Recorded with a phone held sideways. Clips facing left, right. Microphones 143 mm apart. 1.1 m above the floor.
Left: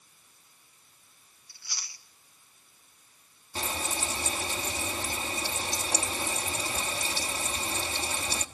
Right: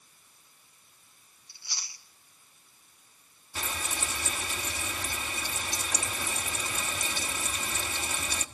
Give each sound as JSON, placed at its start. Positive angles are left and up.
{"t": 1.5, "sound": "chewing", "side_deg": -25, "distance_m": 1.7}
{"t": 3.5, "sound": "frying", "side_deg": 30, "distance_m": 1.3}